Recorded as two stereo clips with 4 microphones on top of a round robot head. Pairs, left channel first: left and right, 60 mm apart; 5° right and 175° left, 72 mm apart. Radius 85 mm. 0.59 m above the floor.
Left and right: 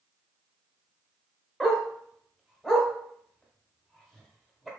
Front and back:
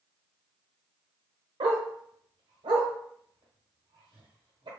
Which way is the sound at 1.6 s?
175° left.